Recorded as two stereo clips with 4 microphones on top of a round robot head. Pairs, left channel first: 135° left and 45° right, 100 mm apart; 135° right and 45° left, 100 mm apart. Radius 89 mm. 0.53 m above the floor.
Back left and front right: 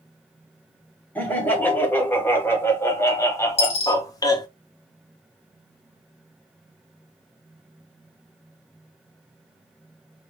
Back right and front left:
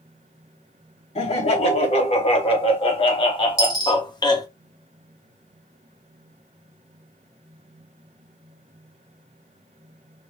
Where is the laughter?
150° right, 3 m; by 4.5 s straight behind, 1.4 m.